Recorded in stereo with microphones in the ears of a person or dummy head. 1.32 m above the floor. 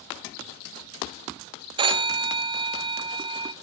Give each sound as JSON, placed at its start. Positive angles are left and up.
{"t": 1.8, "sound": "a phone ringing", "side_deg": -25, "distance_m": 0.6}